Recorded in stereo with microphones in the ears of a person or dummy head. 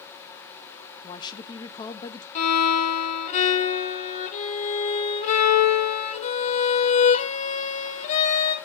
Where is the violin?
40° left (ahead or behind), 1.2 m.